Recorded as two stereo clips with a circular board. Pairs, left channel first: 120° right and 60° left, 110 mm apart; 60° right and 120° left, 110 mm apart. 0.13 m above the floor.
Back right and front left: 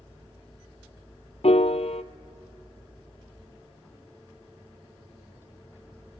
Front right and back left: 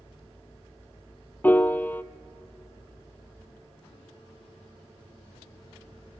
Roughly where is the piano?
Behind right.